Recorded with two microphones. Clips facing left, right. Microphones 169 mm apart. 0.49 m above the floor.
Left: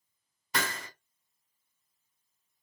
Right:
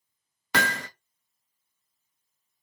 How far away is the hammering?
About 0.6 m.